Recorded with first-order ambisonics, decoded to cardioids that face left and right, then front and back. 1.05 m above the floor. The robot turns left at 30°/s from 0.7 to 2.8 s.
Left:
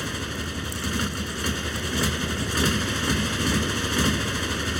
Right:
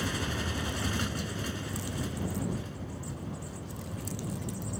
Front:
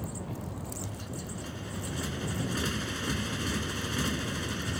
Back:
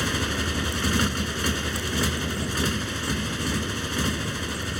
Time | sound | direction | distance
0.0 | a motorcycle | 170° left | ?